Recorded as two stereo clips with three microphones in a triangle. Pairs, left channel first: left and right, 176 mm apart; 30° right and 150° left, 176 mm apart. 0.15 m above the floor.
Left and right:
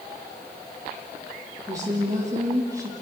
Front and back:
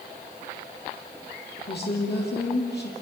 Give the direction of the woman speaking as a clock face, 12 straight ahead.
1 o'clock.